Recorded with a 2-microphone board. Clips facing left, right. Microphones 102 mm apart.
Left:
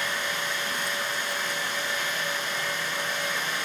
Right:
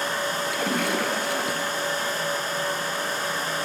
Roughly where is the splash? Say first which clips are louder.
Right 6 dB; right.